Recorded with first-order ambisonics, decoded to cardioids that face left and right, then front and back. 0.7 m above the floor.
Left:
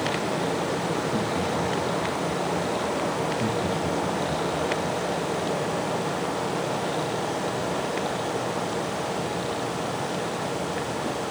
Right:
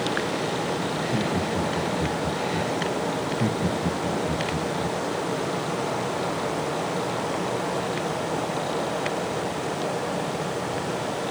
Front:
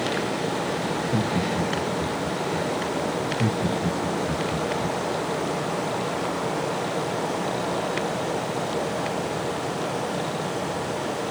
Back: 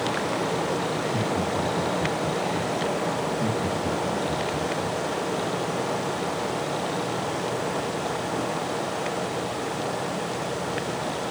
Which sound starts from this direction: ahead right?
Laughter, at 3.2 s.